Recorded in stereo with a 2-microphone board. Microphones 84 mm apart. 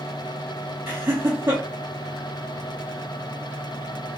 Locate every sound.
0.9 s laughter: 30° right (ahead or behind), 0.7 m